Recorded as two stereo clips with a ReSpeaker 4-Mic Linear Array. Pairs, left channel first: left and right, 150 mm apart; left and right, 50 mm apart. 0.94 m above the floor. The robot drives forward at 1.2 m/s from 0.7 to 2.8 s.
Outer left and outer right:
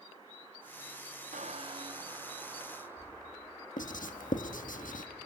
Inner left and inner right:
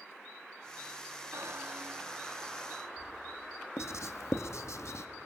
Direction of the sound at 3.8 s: 60° left (ahead or behind).